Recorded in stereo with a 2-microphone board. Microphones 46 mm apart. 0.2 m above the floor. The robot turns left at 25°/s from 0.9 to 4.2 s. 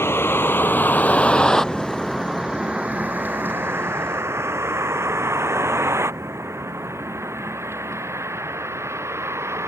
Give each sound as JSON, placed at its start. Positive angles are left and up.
{"t": 0.0, "sound": "a vehicle", "side_deg": 65}